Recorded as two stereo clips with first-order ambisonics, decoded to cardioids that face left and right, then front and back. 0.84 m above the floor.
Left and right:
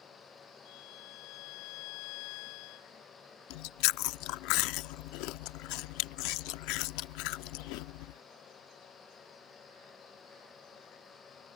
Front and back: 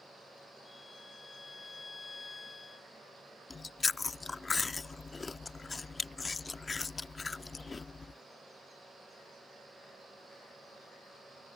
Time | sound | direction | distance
0.7 | a violin | 80° left | ?
3.5 | chewing | 80° left | ?